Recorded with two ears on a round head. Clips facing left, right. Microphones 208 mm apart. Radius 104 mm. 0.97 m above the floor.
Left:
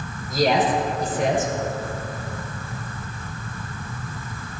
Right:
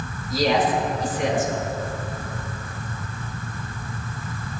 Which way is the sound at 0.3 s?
45° left (ahead or behind).